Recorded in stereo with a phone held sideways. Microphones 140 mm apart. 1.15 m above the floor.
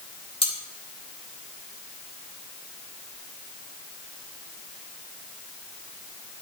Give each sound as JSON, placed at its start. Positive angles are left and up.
{"t": 0.4, "sound": "cutlery clinking", "side_deg": 40, "distance_m": 3.5}